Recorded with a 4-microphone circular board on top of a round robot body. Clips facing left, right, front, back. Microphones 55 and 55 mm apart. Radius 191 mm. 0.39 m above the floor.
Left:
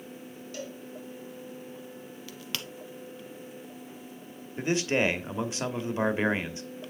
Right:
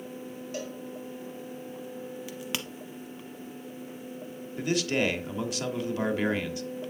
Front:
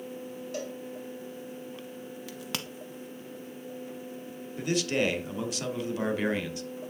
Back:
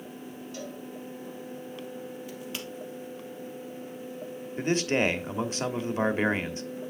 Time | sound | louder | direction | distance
0.5 | a cowbell | right 2 dB, front 4 dB | 25° right | 3.5 m
2.3 | a crack | right 1 dB, even | 15° right | 0.7 m
4.6 | a man speaking | left 1 dB, back 2 dB | 145° left | 1.3 m